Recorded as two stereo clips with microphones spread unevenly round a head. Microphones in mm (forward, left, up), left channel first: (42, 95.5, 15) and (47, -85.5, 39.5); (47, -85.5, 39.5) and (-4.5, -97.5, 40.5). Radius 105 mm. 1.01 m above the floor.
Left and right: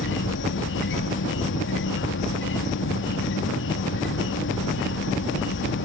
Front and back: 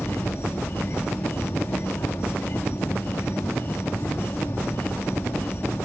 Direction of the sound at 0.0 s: 75° left.